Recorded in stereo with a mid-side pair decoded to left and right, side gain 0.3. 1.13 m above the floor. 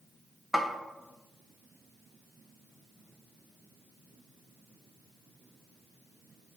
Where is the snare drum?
5° right, 0.5 m.